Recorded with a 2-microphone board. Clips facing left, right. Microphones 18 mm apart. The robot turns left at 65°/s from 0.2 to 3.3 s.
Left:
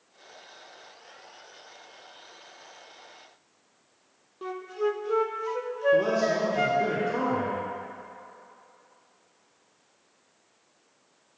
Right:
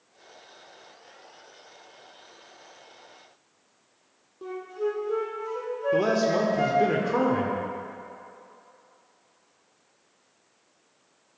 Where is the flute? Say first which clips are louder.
Left 1 dB; 40° left (ahead or behind), 0.7 m.